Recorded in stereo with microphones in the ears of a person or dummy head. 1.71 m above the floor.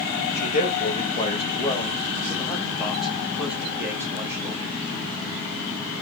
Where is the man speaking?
45° left (ahead or behind), 3 m; by 4.7 s 20° right (ahead or behind), 4 m.